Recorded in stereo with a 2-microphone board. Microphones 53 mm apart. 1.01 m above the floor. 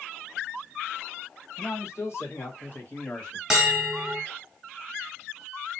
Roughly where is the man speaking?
Left.